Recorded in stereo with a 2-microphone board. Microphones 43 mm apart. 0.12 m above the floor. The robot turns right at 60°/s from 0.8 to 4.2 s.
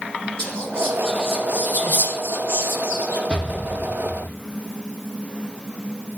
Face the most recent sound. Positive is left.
turn(degrees=35)